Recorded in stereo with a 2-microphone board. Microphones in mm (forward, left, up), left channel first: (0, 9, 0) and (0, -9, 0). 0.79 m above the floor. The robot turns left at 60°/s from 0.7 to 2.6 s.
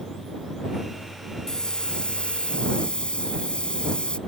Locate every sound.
1.5 s a hiss: 145° left; by 4.2 s 80° left